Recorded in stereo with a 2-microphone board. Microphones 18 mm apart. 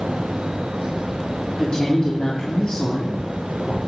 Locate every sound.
1.6 s a woman speaking: 50° left (ahead or behind), 2.5 m